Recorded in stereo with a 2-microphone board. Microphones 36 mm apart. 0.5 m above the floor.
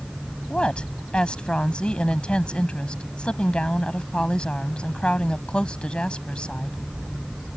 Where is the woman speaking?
30° left (ahead or behind).